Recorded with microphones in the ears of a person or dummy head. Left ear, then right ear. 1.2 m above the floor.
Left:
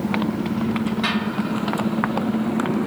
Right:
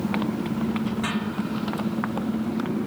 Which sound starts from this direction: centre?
A motorcycle, at 0.0 s.